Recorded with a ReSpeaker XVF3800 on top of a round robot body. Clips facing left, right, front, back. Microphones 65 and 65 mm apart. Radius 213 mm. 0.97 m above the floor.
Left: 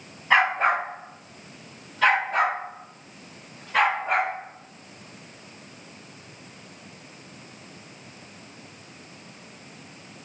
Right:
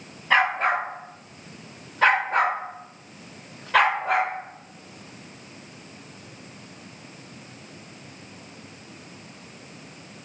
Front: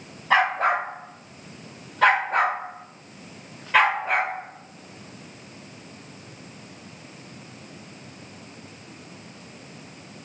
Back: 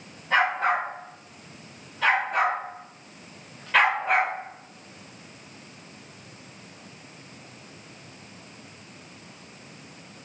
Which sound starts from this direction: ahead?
A dog barking, at 0.3 s.